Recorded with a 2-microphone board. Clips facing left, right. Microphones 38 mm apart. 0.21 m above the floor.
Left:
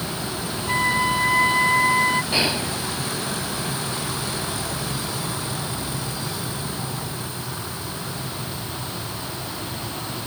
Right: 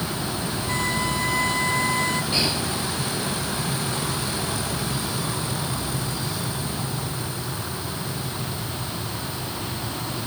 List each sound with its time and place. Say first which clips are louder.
0.7 s a violin: left 6 dB; 25° left (ahead or behind)
2.3 s whispering: left 2 dB; 25° left (ahead or behind)